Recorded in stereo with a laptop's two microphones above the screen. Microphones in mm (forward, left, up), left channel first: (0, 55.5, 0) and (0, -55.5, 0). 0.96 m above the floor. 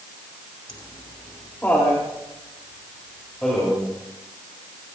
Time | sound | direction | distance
0.7 | laughter | 40° left (ahead or behind) | 2.0 m